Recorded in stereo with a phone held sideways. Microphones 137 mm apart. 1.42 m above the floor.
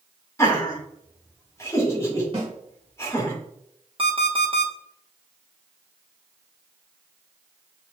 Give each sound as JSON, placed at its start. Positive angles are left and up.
{"t": 0.4, "sound": "laughter", "side_deg": 20, "distance_m": 2.0}
{"t": 2.3, "sound": "a snare drum", "side_deg": -40, "distance_m": 2.0}
{"t": 4.0, "sound": "an alarm clock", "side_deg": -40, "distance_m": 1.3}